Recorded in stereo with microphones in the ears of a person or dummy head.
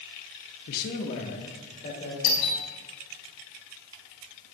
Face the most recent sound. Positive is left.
turn(degrees=60)  # may be behind; listen again after turning